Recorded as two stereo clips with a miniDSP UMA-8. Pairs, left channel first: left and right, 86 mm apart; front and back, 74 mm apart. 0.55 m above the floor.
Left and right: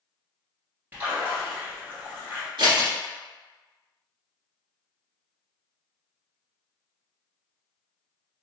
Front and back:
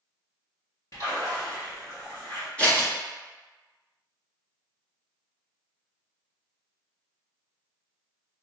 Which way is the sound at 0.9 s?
30° right.